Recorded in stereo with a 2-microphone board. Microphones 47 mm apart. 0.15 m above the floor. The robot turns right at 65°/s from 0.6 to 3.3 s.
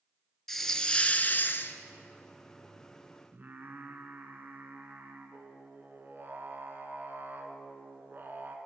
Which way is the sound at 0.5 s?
10° left.